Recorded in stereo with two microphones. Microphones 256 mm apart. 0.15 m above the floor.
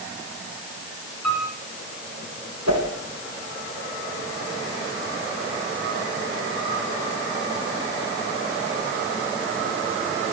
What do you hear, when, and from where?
1.2 s a piano: 80° right, 8.5 m
2.7 s a whoosh: 80° right, 5 m